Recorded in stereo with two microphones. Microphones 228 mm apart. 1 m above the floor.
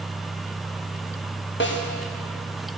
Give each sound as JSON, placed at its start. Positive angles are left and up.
{"t": 1.6, "sound": "a snare drum", "side_deg": 55, "distance_m": 1.3}